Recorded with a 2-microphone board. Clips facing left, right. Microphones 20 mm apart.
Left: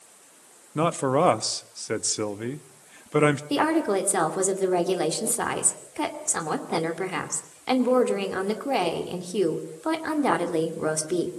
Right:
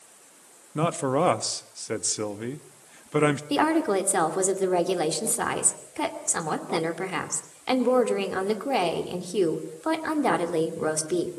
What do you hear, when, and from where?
0.8 s a man speaking: 10° left (ahead or behind), 0.8 m
3.5 s a woman speaking: 5° right (ahead or behind), 2.5 m